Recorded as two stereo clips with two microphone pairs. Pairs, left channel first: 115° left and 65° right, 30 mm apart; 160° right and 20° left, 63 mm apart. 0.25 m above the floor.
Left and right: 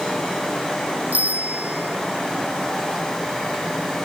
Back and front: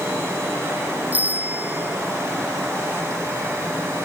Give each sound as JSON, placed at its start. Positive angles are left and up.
{"t": 1.1, "sound": "a bicycle bell", "azimuth_deg": -40}